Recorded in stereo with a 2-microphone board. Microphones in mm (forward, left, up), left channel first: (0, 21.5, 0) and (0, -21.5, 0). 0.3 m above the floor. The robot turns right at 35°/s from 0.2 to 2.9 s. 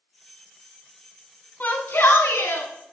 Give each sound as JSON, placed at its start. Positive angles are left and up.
{"t": 1.6, "sound": "a shout", "azimuth_deg": 40, "distance_m": 2.5}